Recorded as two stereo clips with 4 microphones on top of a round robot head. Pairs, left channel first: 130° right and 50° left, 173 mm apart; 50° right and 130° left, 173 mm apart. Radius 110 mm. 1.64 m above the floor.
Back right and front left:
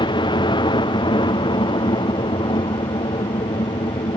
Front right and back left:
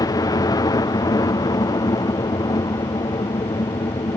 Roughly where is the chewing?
I don't hear chewing.